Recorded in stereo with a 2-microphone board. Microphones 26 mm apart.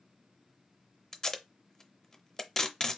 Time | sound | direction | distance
1.1 | tape being pulled | 20° left (ahead or behind) | 0.6 m